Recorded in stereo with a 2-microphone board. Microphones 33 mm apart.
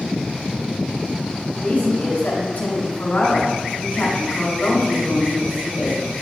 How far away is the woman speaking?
About 2 m.